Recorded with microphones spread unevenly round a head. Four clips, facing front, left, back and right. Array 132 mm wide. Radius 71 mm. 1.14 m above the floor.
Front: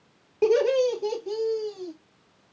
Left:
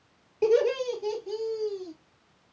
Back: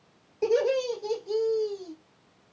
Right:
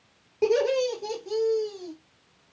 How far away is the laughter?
About 2.5 m.